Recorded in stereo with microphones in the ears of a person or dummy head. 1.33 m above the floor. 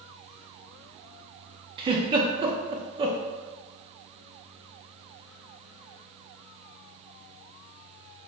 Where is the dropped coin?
I don't hear a dropped coin.